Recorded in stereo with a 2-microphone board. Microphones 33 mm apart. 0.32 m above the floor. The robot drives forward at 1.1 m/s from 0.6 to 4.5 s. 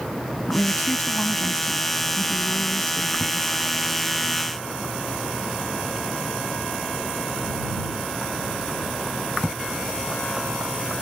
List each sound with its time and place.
0.5 s a woman speaking: 60° left (ahead or behind); by 3.6 s 30° left (ahead or behind)